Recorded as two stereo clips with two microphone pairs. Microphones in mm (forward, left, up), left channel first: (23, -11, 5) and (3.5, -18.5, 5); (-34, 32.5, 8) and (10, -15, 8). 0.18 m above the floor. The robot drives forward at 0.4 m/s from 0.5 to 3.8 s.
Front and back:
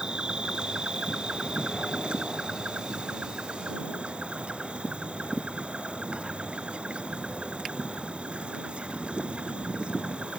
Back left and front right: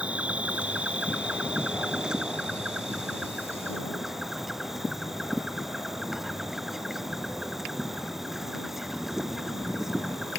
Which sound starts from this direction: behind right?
An insect, at 0.0 s.